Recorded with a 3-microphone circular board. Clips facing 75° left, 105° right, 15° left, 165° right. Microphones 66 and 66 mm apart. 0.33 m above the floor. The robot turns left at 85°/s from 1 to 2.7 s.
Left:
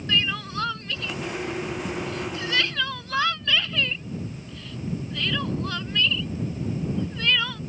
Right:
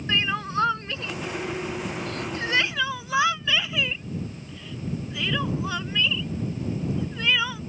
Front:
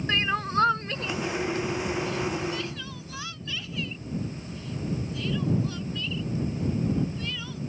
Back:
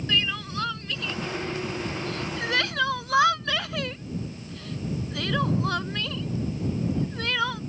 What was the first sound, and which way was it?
Crying, 40° right.